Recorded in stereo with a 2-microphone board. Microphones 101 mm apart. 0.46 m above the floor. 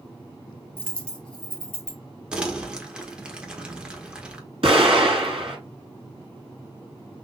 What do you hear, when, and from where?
0.8 s a dropped coin: 10° left (ahead or behind), 1.8 m
2.3 s crumpling: 10° right (ahead or behind), 1.2 m
4.6 s an explosion: 70° right (ahead or behind), 3.5 m